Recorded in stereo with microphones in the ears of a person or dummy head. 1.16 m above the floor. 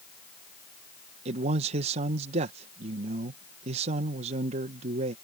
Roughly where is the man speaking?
Right.